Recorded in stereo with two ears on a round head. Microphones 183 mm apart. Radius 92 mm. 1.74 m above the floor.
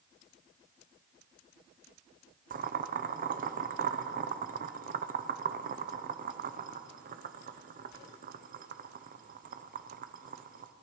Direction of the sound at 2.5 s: 40° right (ahead or behind).